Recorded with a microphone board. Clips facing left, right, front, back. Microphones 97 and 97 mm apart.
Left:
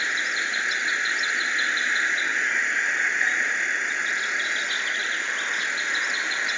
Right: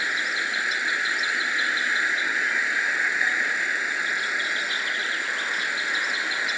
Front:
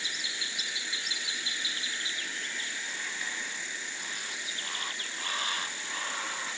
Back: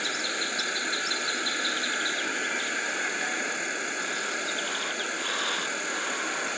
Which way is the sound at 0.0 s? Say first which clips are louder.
Even, back 9 dB; 175° right.